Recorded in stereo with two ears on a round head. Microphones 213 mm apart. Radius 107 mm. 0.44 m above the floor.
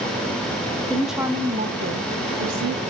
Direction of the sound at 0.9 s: 5° left (ahead or behind).